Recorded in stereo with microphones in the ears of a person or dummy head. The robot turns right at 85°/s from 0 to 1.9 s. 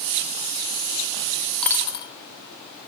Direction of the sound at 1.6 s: 10° left (ahead or behind).